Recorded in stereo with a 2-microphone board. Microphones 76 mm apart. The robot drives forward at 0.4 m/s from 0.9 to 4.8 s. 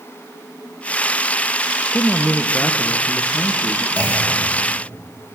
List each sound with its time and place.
1.9 s a man speaking: 15° left (ahead or behind), 0.6 m; by 3.9 s 10° left (ahead or behind), 0.9 m
4.0 s a clunk: 30° left (ahead or behind), 4 m